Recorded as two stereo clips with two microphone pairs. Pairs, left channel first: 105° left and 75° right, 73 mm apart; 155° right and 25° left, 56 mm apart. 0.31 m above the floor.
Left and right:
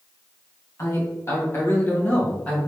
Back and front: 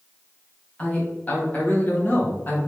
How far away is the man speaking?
About 1.9 m.